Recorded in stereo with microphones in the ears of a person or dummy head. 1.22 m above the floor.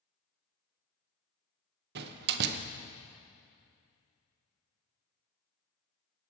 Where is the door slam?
60° right (ahead or behind), 0.6 m.